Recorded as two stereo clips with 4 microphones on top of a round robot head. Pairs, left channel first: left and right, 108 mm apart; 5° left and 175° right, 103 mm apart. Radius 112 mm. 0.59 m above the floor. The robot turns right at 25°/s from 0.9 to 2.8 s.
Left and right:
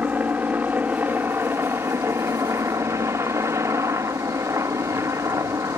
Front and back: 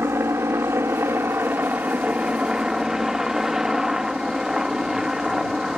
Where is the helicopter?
145° right; by 5.8 s 100° right.